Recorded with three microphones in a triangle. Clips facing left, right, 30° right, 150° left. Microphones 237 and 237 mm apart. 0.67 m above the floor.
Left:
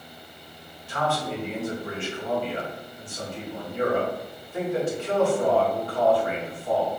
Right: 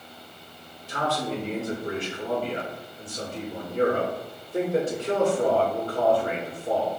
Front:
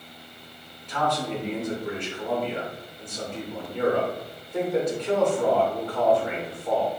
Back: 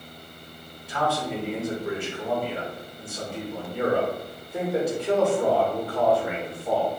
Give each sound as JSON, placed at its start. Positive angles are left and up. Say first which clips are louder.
{"t": 0.9, "sound": "a man speaking", "louder": "even, even", "azimuth_deg": -130, "distance_m": 1.1}